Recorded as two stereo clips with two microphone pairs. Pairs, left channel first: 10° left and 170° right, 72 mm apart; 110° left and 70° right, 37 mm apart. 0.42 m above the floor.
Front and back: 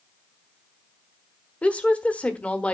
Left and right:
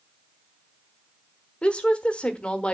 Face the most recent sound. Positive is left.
turn(degrees=75)